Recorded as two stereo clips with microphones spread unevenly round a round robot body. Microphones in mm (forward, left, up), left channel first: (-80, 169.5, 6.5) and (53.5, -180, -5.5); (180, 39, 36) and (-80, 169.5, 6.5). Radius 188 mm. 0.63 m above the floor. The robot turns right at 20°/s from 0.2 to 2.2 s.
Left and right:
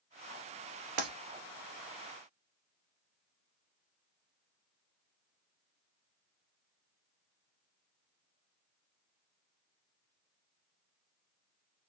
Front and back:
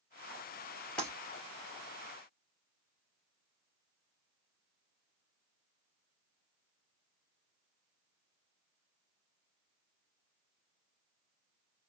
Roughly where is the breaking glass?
Behind right.